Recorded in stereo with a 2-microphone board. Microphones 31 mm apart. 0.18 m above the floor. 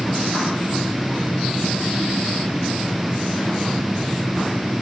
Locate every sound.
Only background noise.